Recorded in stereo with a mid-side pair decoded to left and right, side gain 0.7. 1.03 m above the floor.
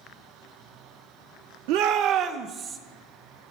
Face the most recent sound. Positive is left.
turn(degrees=-20)